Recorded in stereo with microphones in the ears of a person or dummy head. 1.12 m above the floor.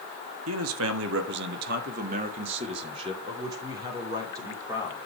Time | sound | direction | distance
0.5 | a man speaking | 80° right | 1.7 m